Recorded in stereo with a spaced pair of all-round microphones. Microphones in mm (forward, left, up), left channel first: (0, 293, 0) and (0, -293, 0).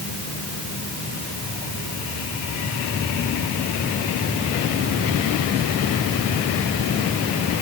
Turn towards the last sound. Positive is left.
No sound to turn to.